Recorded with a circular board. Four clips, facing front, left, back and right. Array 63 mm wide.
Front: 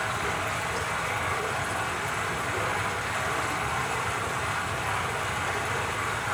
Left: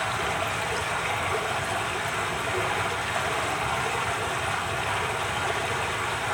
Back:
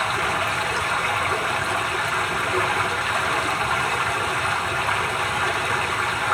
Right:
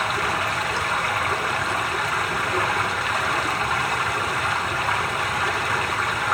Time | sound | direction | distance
0.0 | running water | 135° right | 3 m